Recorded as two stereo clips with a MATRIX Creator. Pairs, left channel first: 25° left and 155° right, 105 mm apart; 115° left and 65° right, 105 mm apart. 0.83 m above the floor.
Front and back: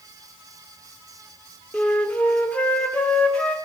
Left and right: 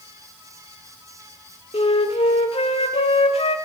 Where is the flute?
100° left, 1.5 m.